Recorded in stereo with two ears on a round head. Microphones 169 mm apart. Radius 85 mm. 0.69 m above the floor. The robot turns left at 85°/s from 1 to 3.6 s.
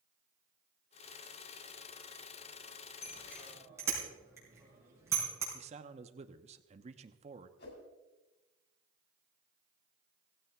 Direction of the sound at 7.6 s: 60° left (ahead or behind).